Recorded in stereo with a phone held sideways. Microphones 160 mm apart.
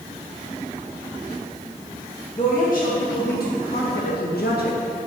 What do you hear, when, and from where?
2.4 s a woman speaking: 55° left (ahead or behind), 2 m; by 4.8 s 75° left (ahead or behind), 1.7 m